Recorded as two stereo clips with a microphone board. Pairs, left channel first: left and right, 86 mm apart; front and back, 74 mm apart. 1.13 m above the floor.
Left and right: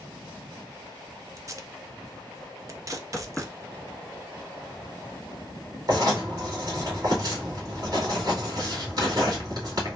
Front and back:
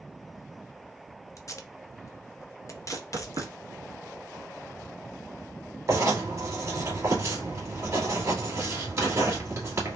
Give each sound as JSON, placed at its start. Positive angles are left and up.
{"t": 1.4, "sound": "tape being pulled", "azimuth_deg": -40, "distance_m": 0.5}
{"t": 2.9, "sound": "knocking", "azimuth_deg": 170, "distance_m": 1.2}
{"t": 5.9, "sound": "writing", "azimuth_deg": -130, "distance_m": 2.0}